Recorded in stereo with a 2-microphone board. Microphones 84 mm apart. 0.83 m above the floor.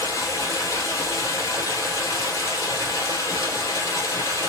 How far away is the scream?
No scream in this recording.